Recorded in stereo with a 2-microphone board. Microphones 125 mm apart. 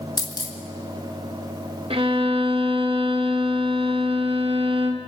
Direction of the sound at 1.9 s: 50° right (ahead or behind).